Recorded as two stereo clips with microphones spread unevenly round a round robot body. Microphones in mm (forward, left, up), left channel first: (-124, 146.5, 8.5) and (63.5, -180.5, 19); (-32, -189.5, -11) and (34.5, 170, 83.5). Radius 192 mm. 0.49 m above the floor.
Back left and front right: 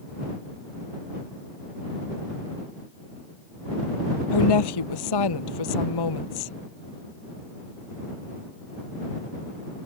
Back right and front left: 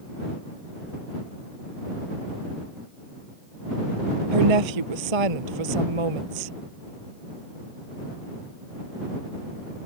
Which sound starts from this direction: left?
A woman speaking, at 4.3 s.